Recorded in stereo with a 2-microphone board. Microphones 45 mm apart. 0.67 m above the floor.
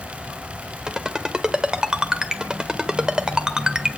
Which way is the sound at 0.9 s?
20° right (ahead or behind).